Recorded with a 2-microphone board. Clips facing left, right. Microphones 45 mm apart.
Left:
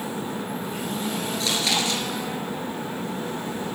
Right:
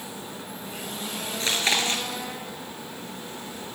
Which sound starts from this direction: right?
Chewing, at 1.4 s.